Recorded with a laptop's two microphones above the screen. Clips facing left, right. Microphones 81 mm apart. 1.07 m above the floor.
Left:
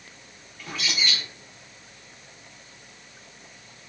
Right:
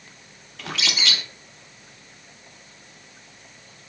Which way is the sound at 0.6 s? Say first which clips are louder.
Right 2 dB; 75° right (ahead or behind).